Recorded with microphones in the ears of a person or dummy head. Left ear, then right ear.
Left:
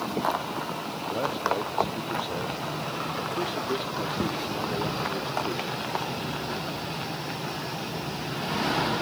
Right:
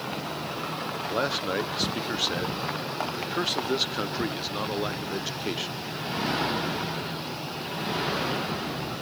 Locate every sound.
1.1 s a man speaking: 45° right (ahead or behind), 0.8 m